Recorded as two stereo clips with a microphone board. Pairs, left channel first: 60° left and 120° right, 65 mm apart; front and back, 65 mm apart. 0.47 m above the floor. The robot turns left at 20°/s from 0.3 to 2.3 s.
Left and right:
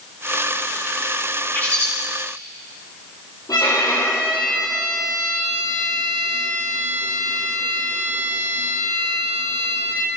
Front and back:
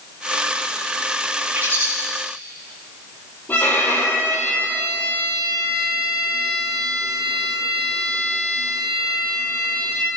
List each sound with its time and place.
1.6 s a bird: 125° left, 9 m; by 1.9 s 120° left, 9 m
3.5 s a violin: 60° left, 9.5 m